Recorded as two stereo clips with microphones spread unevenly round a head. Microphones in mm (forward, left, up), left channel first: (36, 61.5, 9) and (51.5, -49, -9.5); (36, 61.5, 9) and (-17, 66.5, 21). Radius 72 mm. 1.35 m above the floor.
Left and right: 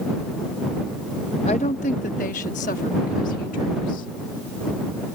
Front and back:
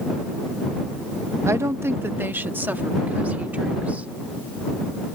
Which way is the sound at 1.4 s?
145° left.